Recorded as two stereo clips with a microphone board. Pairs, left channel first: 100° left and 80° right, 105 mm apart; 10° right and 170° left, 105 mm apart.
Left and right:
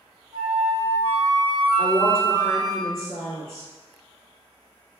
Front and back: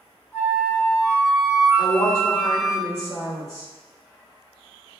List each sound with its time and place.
0.3 s a flute: 80° right, 1.6 m
1.8 s a woman speaking: 40° right, 1.4 m